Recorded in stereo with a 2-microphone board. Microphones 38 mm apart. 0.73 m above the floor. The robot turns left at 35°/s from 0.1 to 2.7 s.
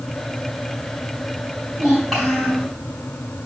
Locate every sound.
1.7 s a child speaking: 165° right, 4.5 m; by 2.7 s 160° left, 4.5 m